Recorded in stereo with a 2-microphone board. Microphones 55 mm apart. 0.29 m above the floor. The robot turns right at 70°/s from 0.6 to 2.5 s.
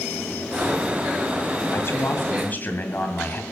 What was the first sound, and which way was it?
A man speaking, 75° left.